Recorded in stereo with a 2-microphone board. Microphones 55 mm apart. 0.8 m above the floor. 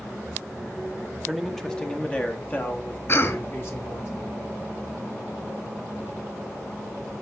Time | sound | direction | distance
1.3 | a man speaking | centre (ahead or behind) | 1.0 m
3.1 | a cough | 50° left (ahead or behind) | 1.7 m